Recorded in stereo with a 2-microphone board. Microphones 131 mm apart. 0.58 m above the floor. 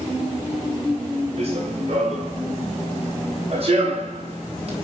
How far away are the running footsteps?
About 9.5 m.